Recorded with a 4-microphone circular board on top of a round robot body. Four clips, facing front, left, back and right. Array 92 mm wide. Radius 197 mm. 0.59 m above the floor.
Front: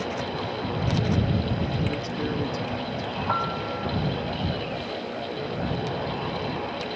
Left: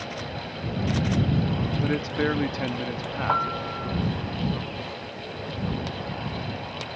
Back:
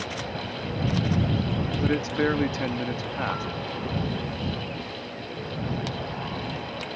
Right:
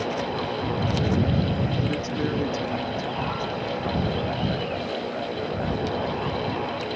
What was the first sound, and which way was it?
A man speaking, 145° left.